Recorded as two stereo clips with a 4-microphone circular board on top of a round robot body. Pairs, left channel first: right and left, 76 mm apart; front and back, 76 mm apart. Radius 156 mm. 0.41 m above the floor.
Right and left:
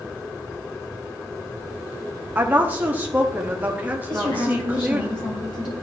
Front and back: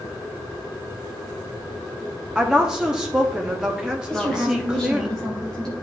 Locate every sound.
2.4 s a woman speaking: 115° left, 1.2 m
4.1 s a woman speaking: 85° right, 3 m